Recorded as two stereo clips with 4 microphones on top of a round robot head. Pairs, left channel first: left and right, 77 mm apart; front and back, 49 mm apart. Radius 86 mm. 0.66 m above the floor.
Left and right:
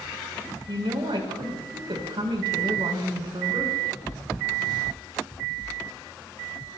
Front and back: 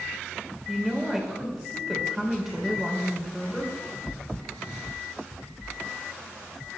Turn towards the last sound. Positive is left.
turn(degrees=-95)